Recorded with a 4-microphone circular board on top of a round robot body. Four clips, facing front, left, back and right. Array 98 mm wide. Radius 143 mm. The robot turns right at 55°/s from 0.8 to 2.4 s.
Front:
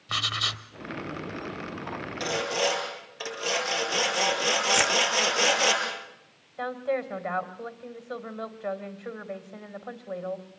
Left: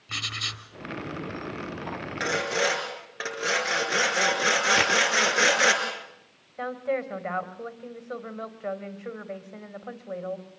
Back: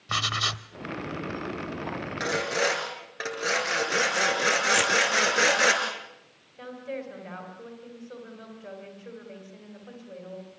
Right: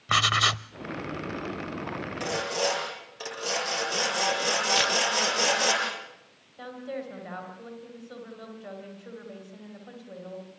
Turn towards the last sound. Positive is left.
turn(degrees=55)